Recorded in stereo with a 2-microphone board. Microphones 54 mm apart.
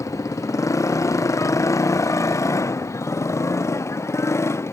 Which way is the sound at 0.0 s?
75° left (ahead or behind).